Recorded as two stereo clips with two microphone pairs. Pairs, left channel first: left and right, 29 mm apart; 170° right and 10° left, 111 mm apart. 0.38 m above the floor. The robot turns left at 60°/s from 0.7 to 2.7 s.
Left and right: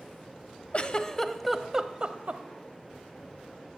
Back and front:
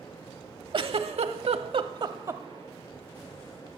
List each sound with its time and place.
0.7 s a giggle: 45° left, 0.9 m; by 2.4 s 55° right, 0.9 m